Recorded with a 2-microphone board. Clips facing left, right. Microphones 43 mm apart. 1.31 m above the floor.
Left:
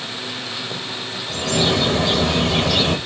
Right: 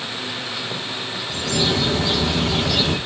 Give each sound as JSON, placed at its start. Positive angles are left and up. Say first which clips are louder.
{"t": 1.3, "sound": "a bird", "louder": "left 3 dB", "side_deg": 50, "distance_m": 1.1}